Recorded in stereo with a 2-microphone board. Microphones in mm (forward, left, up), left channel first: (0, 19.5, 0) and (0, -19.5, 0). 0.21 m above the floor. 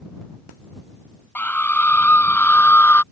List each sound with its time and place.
1.4 s a scream: 50° left (ahead or behind)